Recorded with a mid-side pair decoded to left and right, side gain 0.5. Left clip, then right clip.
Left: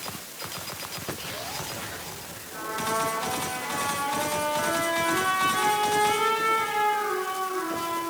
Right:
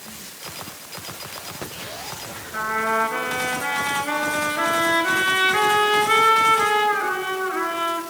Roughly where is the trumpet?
Ahead right.